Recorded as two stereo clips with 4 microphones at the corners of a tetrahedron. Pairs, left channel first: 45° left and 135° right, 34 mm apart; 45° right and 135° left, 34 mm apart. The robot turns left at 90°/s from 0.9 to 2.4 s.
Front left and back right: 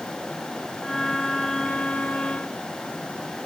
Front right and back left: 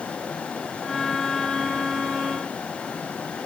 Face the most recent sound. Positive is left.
No sound to turn to.